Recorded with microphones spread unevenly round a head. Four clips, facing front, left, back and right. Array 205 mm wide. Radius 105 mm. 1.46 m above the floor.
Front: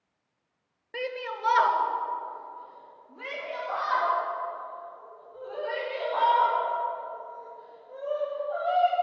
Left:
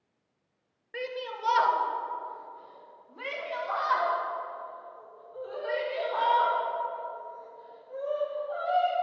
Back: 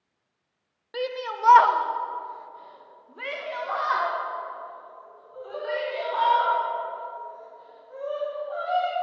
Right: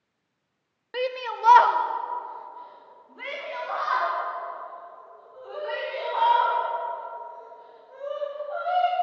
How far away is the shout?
About 0.8 m.